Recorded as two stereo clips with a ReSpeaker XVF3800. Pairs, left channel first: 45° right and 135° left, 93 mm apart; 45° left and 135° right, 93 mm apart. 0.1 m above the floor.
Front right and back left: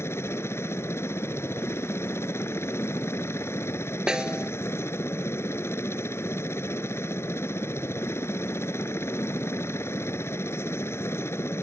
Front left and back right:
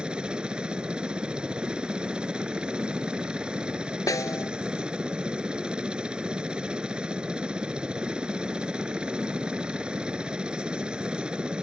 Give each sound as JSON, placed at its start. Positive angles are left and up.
{"t": 0.0, "sound": "a helicopter", "azimuth_deg": -65}
{"t": 4.1, "sound": "a snare drum", "azimuth_deg": 55}